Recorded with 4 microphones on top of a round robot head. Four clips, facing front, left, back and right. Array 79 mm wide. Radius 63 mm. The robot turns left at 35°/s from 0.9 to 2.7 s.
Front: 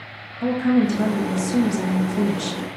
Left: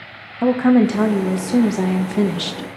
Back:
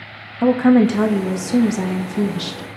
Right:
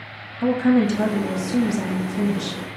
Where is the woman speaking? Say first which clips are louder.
Left 4 dB, back 6 dB; 135° left, 0.9 m; by 2.7 s 75° left, 0.9 m.